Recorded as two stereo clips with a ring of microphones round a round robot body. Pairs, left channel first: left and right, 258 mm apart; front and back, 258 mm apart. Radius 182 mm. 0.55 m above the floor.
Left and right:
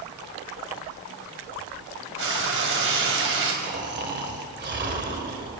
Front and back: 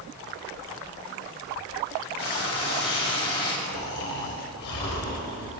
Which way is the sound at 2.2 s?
50° right.